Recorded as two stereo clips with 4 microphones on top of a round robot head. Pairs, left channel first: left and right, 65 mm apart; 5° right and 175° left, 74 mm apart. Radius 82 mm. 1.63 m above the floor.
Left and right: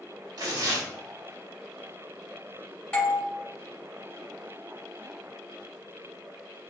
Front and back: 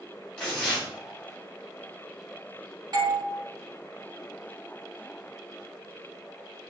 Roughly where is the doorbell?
Behind.